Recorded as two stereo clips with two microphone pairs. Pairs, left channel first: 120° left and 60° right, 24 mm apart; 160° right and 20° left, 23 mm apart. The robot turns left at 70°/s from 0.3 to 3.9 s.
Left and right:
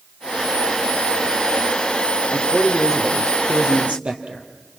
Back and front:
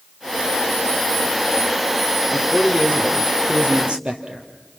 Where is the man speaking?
80° left, 4 m; by 4.5 s 30° right, 4 m.